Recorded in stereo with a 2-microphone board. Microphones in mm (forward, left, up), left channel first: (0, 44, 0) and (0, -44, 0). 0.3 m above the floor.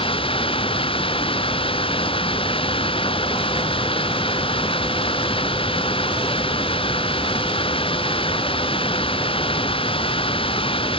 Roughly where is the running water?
Left.